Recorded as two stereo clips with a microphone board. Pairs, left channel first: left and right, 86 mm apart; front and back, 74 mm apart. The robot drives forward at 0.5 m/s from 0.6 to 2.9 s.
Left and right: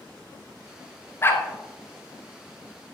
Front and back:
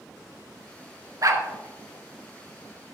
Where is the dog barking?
145° left, 0.8 m; by 1.4 s 150° left, 0.9 m.